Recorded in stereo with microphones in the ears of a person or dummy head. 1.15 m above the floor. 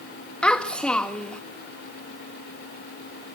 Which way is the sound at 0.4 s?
10° left (ahead or behind).